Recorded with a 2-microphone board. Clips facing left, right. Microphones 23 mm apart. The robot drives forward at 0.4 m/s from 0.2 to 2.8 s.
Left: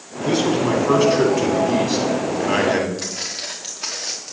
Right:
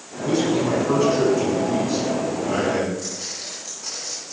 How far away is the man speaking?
About 4 m.